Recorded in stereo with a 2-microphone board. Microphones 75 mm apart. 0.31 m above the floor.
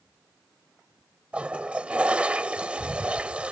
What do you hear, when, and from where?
1.3 s a toilet flushing: 15° right (ahead or behind)